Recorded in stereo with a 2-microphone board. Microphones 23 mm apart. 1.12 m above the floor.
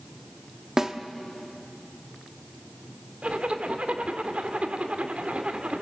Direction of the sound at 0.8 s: 25° right (ahead or behind).